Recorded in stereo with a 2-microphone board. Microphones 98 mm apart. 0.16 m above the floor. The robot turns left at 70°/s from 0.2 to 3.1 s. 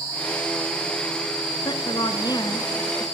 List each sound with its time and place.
1.6 s a woman speaking: 110° left, 1.6 m; by 3.0 s 10° left, 1.6 m